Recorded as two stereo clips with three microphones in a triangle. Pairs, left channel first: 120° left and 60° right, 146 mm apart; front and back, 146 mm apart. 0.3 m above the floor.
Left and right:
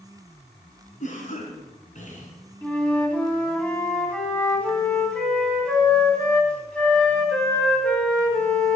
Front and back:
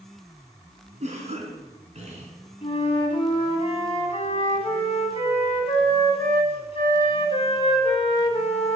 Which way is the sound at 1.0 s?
145° left.